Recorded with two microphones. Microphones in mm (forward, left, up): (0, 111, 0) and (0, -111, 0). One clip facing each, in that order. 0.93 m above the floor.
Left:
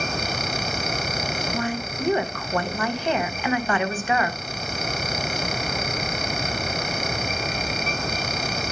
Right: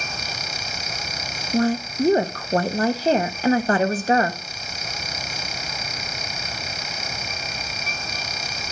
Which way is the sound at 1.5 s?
35° right (ahead or behind).